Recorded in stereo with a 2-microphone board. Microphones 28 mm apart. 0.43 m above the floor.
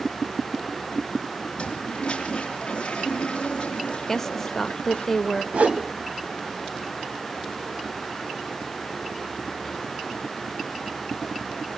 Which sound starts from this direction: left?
A toilet flushing, at 1.6 s.